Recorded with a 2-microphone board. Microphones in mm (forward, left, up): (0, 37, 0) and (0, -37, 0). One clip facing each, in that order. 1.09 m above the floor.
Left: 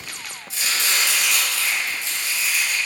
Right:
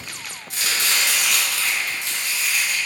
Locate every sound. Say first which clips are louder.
0.5 s chopping: even; 55° right (ahead or behind), 2.0 m